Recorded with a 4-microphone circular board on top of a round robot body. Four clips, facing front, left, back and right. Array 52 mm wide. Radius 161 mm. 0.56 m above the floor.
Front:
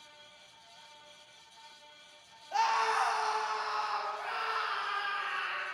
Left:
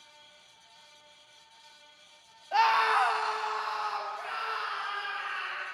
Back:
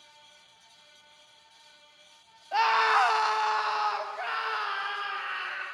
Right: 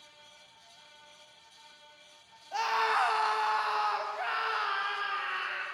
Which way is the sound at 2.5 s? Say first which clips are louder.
Left 4 dB, back 6 dB; 130° left.